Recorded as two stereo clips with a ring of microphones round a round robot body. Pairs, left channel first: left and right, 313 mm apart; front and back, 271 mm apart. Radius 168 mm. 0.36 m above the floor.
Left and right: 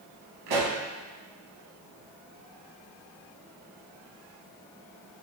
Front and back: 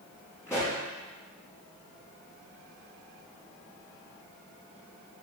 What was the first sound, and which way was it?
A pop, 80° right.